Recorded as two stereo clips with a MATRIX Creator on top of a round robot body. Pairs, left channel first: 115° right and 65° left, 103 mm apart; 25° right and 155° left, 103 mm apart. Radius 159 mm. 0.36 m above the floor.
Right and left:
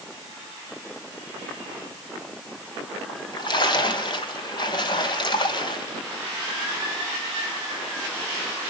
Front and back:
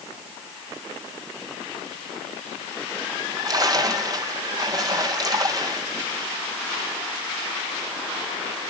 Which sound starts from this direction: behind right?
A splash, at 3.1 s.